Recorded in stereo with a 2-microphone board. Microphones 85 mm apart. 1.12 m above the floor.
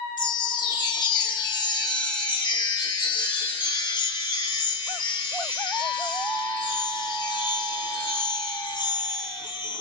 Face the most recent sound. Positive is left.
turn(degrees=55)  # may be behind; listen again after turning